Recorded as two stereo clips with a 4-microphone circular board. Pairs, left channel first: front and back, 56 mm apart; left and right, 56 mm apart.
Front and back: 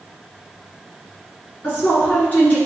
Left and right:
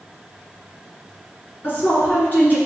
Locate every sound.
1.6 s a woman speaking: 50° left, 1.8 m